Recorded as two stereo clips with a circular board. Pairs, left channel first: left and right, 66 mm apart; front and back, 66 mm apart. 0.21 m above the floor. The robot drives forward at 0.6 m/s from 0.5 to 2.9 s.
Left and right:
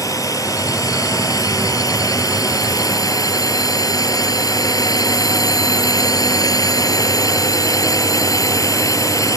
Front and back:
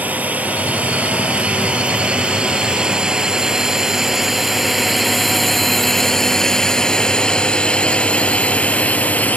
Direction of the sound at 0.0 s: 115° left.